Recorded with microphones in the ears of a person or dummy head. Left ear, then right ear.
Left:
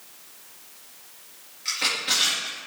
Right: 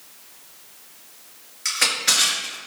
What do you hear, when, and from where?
1.6 s crushing: 45° right (ahead or behind), 4.5 m